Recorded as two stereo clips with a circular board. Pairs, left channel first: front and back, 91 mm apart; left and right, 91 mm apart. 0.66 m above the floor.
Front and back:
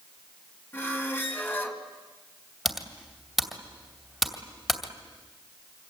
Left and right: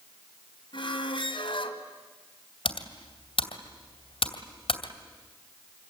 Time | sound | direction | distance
0.7 | a squeak | 70° left | 2.5 m
2.6 | typing on a keyboard | 90° left | 2.5 m